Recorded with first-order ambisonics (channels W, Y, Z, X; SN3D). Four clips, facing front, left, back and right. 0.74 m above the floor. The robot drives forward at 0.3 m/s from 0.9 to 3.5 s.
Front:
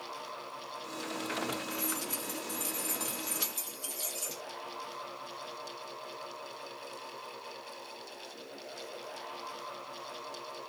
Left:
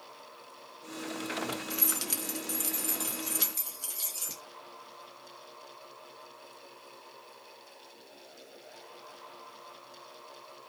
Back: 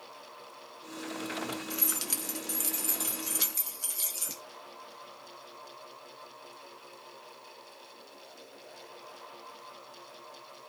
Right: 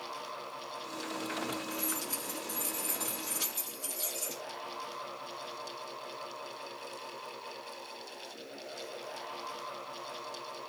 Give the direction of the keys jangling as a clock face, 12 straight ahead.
8 o'clock.